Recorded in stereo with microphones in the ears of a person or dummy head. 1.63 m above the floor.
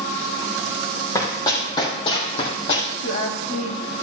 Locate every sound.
1.1 s running footsteps: 20° left (ahead or behind), 3.5 m; by 2.9 s 45° left (ahead or behind), 3.5 m
3.0 s a woman speaking: 40° left (ahead or behind), 2.5 m